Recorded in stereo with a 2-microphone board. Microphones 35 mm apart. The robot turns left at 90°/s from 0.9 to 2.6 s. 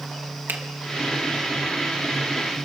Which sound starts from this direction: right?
A finger snap, at 0.5 s.